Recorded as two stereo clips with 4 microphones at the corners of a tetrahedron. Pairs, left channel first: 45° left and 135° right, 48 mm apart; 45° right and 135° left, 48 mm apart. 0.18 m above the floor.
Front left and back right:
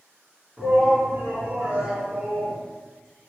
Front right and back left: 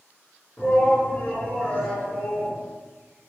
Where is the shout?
70° right, 1.8 m.